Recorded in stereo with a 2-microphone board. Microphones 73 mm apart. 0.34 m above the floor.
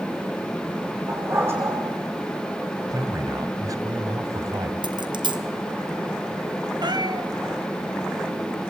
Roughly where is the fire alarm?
No fire alarm in this recording.